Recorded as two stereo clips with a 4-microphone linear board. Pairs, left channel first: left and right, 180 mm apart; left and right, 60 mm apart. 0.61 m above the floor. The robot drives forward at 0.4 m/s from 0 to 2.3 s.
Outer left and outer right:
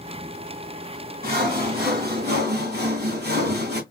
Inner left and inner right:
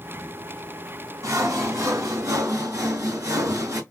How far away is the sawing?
About 3 m.